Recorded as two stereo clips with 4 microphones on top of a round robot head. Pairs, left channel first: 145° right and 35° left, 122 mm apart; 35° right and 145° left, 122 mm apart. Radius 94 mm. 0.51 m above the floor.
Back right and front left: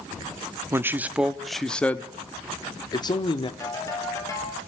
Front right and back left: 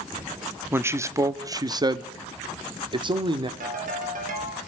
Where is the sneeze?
No sneeze in this recording.